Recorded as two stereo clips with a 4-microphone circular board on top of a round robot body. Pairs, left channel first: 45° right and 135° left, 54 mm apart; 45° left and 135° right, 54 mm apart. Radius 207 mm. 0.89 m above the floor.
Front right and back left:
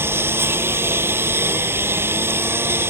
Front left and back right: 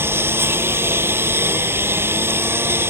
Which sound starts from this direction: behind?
A lawn mower, at 0.0 s.